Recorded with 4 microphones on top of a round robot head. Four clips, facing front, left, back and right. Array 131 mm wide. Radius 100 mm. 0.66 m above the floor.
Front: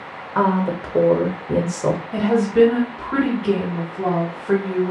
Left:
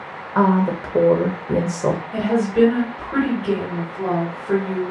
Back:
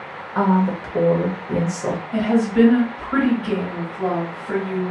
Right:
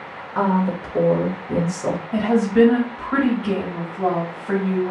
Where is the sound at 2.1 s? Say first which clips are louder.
Right 4 dB, even; 80° right, 1.9 m.